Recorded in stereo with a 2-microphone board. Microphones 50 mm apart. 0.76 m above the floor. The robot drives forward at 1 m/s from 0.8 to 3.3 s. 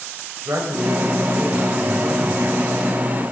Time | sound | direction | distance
0.5 | a man speaking | 80° right | 3 m